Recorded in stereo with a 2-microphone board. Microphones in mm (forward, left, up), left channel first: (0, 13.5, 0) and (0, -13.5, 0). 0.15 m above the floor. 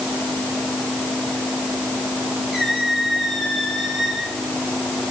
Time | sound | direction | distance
2.5 | a squeak | 20° right (ahead or behind) | 7.5 m